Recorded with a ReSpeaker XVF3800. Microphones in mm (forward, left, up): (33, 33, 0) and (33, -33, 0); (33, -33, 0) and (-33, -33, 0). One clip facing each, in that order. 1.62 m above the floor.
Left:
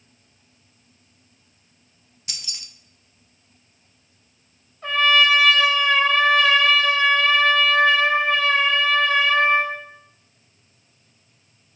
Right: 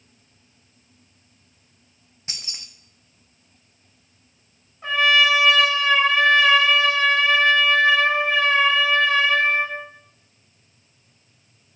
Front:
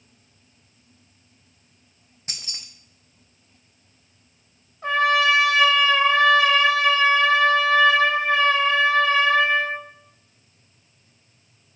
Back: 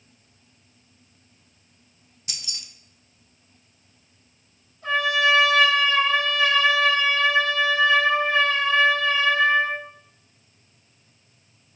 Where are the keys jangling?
40° right, 0.7 m.